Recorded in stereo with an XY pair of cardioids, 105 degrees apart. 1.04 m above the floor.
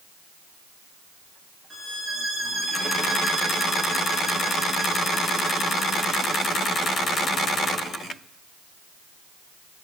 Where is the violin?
20° right, 3 m.